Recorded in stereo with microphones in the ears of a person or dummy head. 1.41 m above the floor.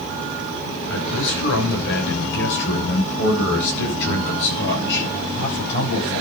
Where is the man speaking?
70° left (ahead or behind), 6.5 m.